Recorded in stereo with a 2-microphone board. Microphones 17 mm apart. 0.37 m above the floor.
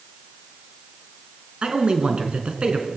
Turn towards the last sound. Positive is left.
turn(degrees=-70)  # may be behind; listen again after turning